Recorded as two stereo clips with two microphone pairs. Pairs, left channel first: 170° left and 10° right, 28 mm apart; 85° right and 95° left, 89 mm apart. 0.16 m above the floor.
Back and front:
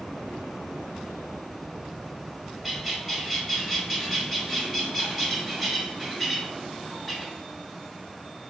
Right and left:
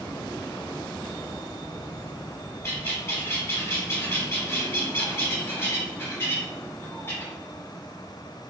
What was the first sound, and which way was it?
A bird, 85° right.